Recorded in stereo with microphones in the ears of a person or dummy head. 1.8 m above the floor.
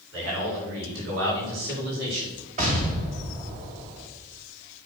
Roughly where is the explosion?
Right.